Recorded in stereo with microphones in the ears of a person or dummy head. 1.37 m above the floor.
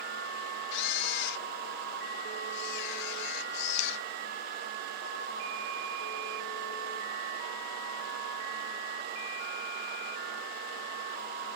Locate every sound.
0.7 s a camera shutter: 60° left (ahead or behind)